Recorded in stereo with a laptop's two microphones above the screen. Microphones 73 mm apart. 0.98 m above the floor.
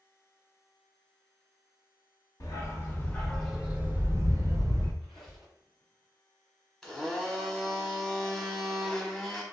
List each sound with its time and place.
2.4 s a dog barking: 45° left (ahead or behind), 0.8 m; by 4.9 s 55° right (ahead or behind), 1.0 m
5.0 s a squeak: centre (ahead or behind), 1.4 m
6.8 s a blender: 5° left (ahead or behind), 0.9 m